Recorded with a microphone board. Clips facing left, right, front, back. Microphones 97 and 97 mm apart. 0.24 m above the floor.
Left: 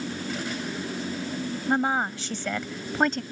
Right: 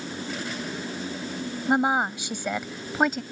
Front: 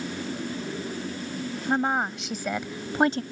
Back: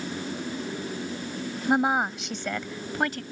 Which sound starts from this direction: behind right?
A woman speaking, at 1.7 s.